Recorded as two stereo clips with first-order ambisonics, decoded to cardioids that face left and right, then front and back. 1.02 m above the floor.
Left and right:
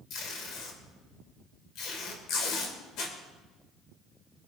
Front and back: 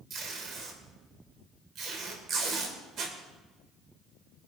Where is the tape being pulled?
130° left, 3 m.